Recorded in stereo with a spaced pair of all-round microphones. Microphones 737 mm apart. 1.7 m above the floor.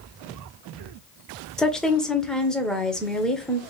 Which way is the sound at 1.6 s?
Centre (ahead or behind).